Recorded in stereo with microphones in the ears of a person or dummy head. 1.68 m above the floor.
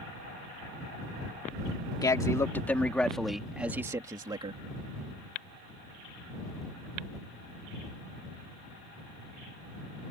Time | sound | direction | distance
2.0 | a man speaking | 20° left (ahead or behind) | ?